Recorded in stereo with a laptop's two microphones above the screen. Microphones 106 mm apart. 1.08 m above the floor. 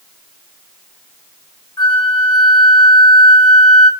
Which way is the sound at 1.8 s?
40° left (ahead or behind).